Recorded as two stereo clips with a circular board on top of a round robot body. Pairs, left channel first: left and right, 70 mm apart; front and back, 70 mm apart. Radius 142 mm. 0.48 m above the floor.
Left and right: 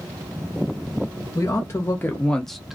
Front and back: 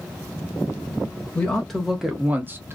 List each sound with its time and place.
1.4 s a man speaking: 70° left, 1.0 m; by 2.8 s 165° right, 0.9 m